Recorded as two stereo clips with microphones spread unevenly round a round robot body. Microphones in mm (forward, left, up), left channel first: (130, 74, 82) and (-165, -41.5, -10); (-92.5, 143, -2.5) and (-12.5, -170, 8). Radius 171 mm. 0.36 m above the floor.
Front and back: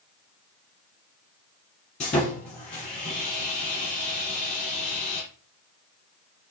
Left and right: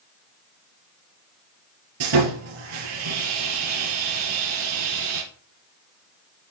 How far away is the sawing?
About 3 m.